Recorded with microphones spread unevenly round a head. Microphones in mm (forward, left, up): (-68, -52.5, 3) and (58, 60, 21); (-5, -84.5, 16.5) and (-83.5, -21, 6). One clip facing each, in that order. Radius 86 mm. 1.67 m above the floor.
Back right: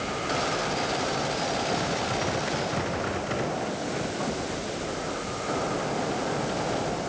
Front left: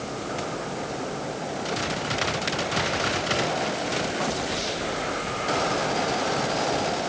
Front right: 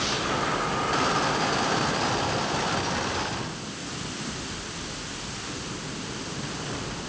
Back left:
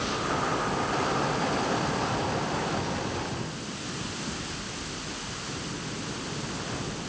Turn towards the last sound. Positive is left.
No sound to turn to.